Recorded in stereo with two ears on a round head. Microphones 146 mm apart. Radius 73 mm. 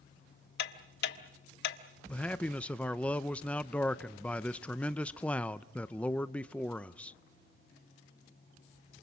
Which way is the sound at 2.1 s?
5° left (ahead or behind).